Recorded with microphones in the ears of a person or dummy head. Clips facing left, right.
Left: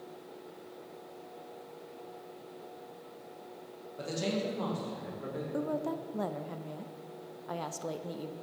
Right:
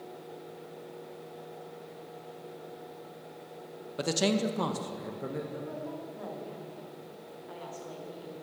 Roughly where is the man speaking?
Right.